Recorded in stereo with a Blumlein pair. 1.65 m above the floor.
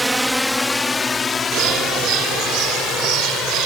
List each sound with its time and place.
0.0 s a drone: 5° right; by 3.7 s 30° left
1.5 s a bird: 40° right